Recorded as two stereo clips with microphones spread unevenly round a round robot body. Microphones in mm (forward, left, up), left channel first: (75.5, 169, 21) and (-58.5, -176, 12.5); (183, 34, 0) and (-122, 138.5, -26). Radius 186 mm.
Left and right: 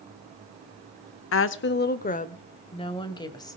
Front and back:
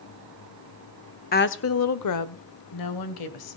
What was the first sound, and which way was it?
A woman speaking, 35° left.